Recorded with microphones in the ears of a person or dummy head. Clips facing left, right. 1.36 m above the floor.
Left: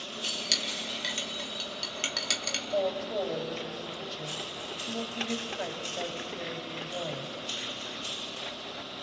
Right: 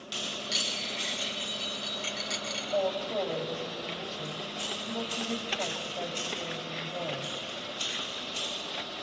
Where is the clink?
65° left (ahead or behind), 1.7 m.